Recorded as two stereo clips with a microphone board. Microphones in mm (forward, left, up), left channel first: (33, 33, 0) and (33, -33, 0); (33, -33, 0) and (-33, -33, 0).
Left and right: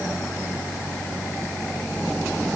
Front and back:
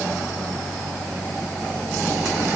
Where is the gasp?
I don't hear a gasp.